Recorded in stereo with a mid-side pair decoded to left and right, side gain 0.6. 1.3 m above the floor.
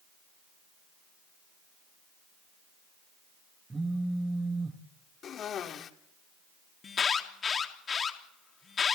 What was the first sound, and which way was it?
A phone buzzing, 15° right.